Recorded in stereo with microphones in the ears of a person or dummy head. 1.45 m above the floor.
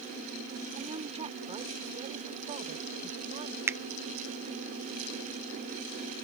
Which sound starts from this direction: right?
A woman speaking, at 0.8 s.